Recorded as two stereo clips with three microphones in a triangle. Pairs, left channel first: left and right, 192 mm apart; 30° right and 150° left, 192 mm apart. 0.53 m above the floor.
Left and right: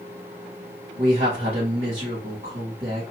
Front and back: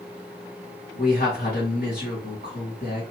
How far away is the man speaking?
About 2 m.